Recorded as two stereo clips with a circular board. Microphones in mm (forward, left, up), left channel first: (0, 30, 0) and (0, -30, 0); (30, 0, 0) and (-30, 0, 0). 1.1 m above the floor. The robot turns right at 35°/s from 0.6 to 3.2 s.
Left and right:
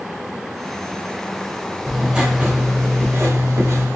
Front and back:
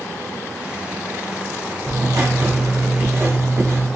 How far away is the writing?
About 1.2 m.